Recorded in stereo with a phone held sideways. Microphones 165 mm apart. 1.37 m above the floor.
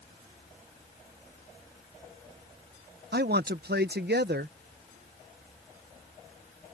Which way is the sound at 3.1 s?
80° right.